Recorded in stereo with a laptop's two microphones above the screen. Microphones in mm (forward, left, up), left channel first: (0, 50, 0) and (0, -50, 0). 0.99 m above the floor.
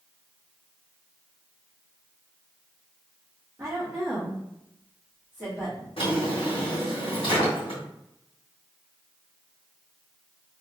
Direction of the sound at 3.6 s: 25° right (ahead or behind).